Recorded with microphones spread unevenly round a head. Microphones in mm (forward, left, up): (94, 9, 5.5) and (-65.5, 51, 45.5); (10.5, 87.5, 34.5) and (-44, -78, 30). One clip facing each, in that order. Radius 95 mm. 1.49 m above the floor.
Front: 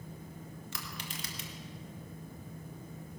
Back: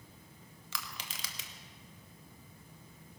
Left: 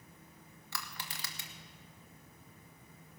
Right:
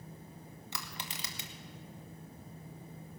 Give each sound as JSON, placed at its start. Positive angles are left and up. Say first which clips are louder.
{"t": 0.7, "sound": "crushing", "louder": "even, even", "azimuth_deg": 180, "distance_m": 1.2}